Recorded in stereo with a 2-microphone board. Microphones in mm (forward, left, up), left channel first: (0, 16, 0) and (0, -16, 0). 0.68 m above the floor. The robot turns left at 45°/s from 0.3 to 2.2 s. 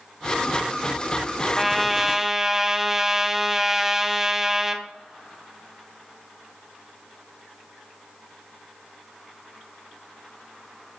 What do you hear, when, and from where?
1.6 s a trumpet: 5° left (ahead or behind), 1.1 m; by 4.8 s 15° right (ahead or behind), 1.1 m